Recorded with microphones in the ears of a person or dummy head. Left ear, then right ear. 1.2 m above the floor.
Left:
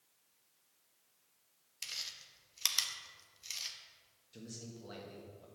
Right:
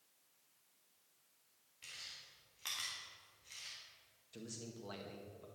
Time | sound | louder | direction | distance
1.8 | chewing | left 8 dB | 80° left | 1.5 m
4.3 | a man speaking | even | 20° right (ahead or behind) | 1.6 m